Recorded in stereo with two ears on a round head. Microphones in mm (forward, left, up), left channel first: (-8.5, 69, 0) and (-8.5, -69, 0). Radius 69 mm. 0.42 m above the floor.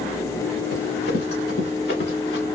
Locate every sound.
0.7 s running footsteps: 80° left, 2.5 m; by 2.5 s 75° left (ahead or behind), 1.6 m